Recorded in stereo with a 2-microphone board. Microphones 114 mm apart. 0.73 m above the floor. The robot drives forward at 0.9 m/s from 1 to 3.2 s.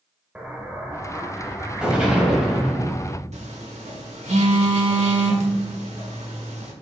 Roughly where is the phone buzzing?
Right.